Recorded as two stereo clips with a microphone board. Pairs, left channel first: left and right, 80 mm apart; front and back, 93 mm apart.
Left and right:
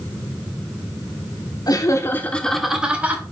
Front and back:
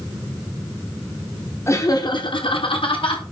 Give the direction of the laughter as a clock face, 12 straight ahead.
10 o'clock.